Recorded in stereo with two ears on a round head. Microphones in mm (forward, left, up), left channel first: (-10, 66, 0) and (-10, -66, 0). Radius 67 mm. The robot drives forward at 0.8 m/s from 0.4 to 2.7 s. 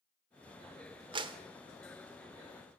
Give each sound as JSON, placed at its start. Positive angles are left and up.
{"t": 1.1, "sound": "a clap", "side_deg": -35, "distance_m": 1.3}